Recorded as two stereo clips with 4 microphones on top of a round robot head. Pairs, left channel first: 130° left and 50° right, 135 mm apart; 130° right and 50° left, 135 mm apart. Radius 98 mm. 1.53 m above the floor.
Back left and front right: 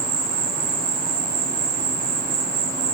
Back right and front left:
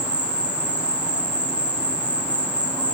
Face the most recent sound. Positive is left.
turn(degrees=-35)